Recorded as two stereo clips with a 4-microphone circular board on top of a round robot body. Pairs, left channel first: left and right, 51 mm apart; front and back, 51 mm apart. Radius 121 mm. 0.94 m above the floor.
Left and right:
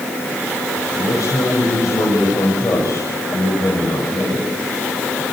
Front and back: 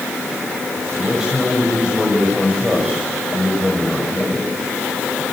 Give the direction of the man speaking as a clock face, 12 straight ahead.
9 o'clock.